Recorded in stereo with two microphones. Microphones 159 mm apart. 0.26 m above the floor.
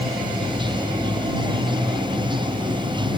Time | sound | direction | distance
0.0 | running water | 30° right (ahead or behind) | ?